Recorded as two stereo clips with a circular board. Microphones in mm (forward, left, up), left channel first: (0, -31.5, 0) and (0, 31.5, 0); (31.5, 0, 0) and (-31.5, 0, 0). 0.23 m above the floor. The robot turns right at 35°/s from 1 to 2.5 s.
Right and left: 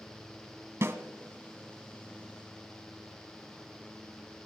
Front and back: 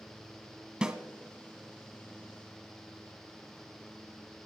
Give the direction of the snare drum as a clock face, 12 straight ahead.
8 o'clock.